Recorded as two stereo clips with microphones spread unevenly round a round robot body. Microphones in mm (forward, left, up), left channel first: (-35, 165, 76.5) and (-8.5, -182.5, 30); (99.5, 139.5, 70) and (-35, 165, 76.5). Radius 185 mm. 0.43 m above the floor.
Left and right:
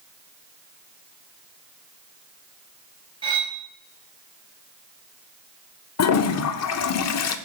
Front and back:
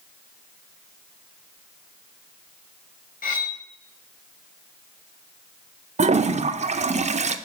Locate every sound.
3.2 s cutlery clinking: 10° right, 1.5 m
6.0 s a toilet flushing: 140° left, 0.6 m